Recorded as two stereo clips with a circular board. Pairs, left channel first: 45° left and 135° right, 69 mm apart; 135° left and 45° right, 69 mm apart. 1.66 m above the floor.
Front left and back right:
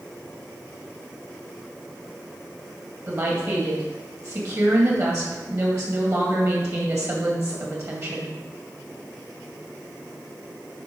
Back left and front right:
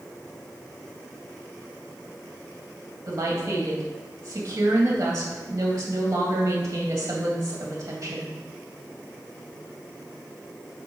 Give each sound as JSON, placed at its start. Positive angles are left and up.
{"t": 3.1, "sound": "a woman speaking", "azimuth_deg": -90, "distance_m": 1.7}